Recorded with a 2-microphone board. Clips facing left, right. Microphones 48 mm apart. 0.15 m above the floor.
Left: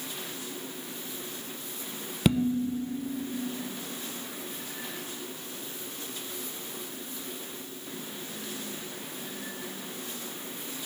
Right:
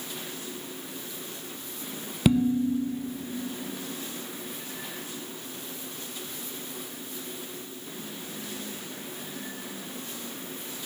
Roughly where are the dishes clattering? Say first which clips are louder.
Right 3 dB; centre.